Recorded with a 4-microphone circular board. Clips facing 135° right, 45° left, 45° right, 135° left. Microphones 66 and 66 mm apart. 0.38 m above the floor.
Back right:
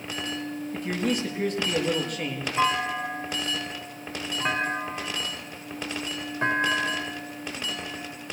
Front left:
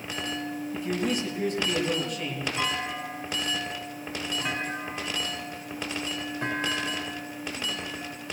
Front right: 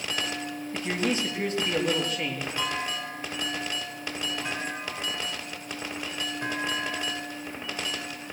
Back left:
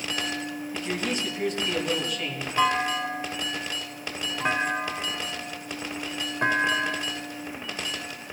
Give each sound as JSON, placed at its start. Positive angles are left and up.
{"t": 0.7, "sound": "a man speaking", "azimuth_deg": -95, "distance_m": 7.0}
{"t": 2.6, "sound": "a clunk", "azimuth_deg": 175, "distance_m": 2.5}